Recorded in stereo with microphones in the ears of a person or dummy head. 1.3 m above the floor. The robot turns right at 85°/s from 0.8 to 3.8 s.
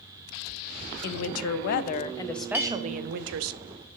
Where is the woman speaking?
60° left, 0.5 m; by 3.5 s 85° right, 0.5 m.